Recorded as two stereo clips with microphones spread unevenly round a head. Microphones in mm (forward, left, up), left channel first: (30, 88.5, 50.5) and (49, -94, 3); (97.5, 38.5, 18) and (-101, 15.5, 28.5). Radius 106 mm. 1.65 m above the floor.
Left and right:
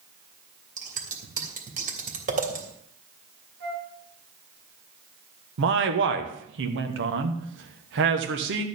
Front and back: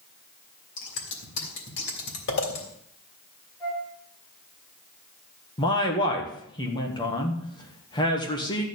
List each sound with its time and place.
0.8 s scissors: 30° right, 3 m
3.6 s a flute: 70° right, 5.5 m
5.6 s a man speaking: 65° right, 1.5 m